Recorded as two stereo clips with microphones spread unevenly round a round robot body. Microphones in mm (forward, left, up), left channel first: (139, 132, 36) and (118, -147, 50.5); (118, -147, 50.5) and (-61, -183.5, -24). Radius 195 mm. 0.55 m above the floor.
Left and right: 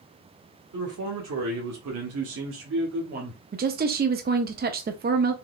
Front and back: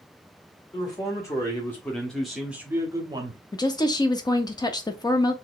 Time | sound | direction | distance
0.7 | a man speaking | 65° right | 1.7 m
3.5 | a woman speaking | 80° right | 0.6 m